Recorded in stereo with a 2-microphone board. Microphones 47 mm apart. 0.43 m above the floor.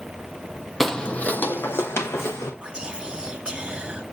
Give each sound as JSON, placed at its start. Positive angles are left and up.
{"t": 0.8, "sound": "footsteps", "side_deg": 0, "distance_m": 0.5}
{"t": 2.6, "sound": "whispering", "side_deg": -15, "distance_m": 1.4}